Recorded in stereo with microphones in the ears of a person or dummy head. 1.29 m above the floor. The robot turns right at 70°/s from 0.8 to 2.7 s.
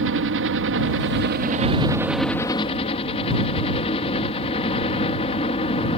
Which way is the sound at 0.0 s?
95° right.